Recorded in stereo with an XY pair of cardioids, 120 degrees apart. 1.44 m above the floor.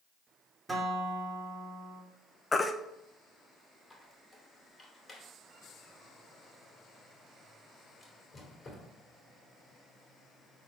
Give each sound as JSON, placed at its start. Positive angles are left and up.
{"t": 0.7, "sound": "a guitar", "azimuth_deg": -15, "distance_m": 2.5}
{"t": 2.5, "sound": "a baby crying", "azimuth_deg": 20, "distance_m": 0.8}
{"t": 3.9, "sound": "a squeak", "azimuth_deg": 25, "distance_m": 2.5}